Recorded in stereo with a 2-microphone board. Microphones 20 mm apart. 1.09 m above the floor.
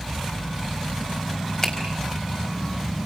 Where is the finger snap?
35° left (ahead or behind), 5 m.